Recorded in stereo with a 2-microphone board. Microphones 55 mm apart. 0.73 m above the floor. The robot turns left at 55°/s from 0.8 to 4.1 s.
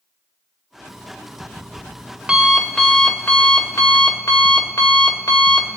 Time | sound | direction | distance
0.9 | an alarm clock | 85° right | 1.4 m